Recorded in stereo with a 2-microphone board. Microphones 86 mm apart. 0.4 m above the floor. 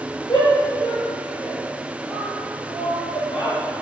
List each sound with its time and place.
0.3 s a shout: 50° left (ahead or behind), 6.5 m; by 3.6 s 70° left (ahead or behind), 9.5 m